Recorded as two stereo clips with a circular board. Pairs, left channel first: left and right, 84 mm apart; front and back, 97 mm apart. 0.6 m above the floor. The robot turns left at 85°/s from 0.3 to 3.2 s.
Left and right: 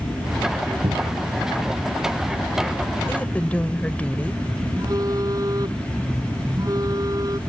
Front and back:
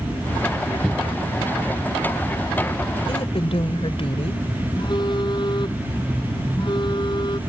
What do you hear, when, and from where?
0.8 s a cupboard door: 75° right; by 1.3 s 110° right
3.1 s a woman speaking: 30° left; by 4.4 s 15° left
4.8 s a phone buzzing: 45° right